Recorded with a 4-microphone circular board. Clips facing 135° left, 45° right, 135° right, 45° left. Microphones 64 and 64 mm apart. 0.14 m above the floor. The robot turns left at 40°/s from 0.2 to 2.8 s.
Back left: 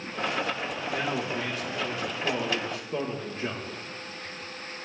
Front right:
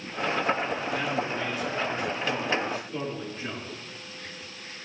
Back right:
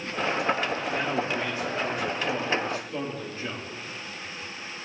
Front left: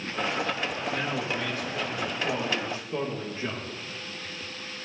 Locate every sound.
0.9 s a man speaking: straight behind, 6 m; by 3.7 s 100° left, 6 m